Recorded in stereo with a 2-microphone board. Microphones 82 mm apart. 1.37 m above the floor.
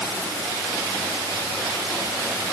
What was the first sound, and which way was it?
Only background noise.